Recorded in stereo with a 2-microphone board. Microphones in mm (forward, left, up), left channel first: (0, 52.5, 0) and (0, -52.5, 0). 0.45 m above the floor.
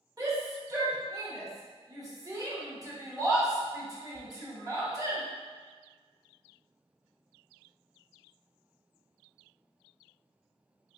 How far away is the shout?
About 1.1 m.